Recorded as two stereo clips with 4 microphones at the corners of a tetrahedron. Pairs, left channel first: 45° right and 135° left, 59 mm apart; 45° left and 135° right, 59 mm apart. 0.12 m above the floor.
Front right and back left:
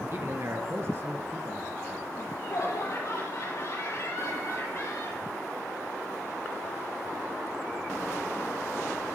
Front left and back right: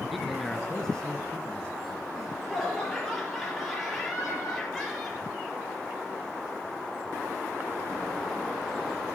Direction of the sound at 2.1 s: 45° right.